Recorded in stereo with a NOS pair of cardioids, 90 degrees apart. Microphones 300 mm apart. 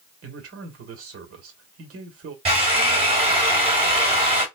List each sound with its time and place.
0.2 s a man speaking: 50° right, 1.6 m
2.5 s a drill: 20° right, 2 m